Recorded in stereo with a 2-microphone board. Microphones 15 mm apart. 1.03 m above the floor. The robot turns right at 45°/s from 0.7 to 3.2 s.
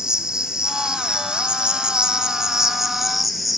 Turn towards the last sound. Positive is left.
turn(degrees=-5)